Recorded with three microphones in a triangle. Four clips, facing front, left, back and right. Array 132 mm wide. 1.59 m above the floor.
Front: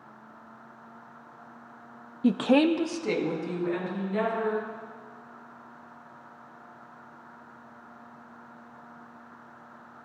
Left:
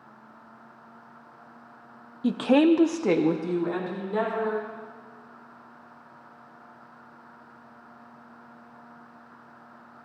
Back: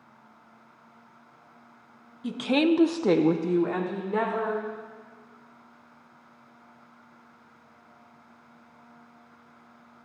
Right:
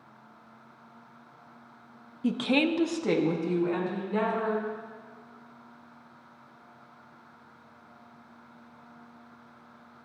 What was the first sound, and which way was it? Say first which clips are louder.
A woman speaking: left 6 dB, front 2 dB; 15° left.